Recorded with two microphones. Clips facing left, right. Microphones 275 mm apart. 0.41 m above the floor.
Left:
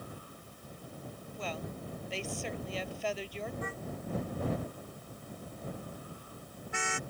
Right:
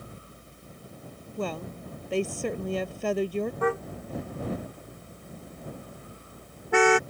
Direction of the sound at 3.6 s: 75° right (ahead or behind).